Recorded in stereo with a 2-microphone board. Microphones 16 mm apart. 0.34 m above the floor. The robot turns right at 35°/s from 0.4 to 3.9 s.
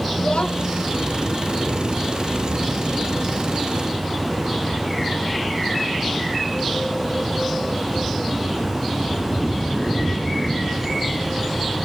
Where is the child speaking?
85° left; by 0.8 s 70° left (ahead or behind).